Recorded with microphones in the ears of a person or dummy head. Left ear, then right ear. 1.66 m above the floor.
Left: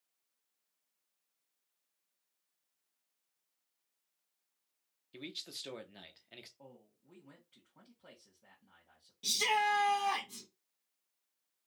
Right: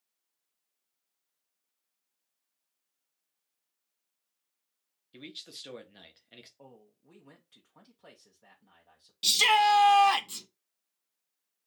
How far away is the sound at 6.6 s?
About 1.0 m.